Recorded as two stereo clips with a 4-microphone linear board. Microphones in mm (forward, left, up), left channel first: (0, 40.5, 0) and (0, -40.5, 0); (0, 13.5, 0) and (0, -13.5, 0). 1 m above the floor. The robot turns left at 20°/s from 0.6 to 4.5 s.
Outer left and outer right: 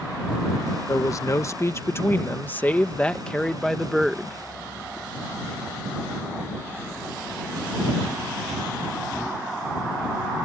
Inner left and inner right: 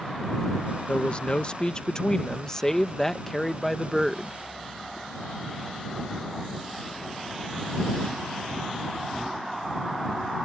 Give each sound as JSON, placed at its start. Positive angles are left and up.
{"t": 0.9, "sound": "a man speaking", "azimuth_deg": 60}